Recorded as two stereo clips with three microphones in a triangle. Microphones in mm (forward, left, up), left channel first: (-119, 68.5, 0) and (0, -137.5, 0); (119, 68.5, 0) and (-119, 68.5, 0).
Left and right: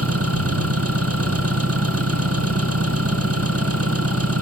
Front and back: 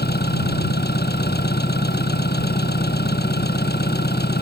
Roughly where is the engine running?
Ahead right.